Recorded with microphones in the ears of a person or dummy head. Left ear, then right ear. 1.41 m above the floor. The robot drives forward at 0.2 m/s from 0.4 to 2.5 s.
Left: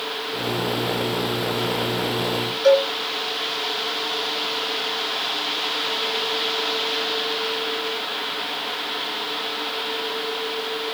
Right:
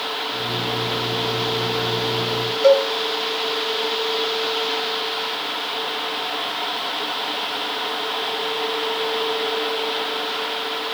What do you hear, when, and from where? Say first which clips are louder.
2.6 s a cowbell: right 2 dB; 55° right (ahead or behind), 1.7 m